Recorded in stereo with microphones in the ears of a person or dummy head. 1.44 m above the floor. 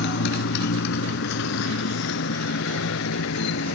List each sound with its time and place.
0.0 s a motorcycle: 60° left (ahead or behind); by 3.8 s 75° left (ahead or behind)